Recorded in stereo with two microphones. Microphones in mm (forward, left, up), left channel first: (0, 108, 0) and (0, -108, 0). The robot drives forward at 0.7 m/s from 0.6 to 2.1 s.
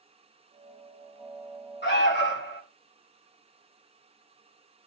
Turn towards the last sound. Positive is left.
turn(degrees=55)  # may be behind; listen again after turning